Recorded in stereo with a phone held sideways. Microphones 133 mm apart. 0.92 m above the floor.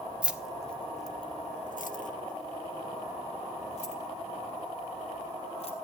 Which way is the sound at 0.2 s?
10° right (ahead or behind).